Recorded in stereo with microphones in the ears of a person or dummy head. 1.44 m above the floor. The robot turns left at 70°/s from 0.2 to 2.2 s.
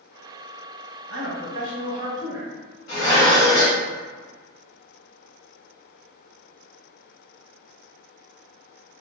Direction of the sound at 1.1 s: 80° right.